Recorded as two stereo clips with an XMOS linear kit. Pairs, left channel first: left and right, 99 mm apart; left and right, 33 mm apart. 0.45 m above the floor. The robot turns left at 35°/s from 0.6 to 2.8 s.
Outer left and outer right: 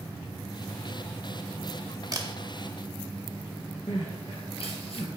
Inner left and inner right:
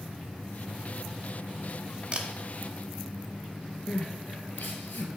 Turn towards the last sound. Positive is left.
turn(degrees=75)  # may be behind; listen again after turning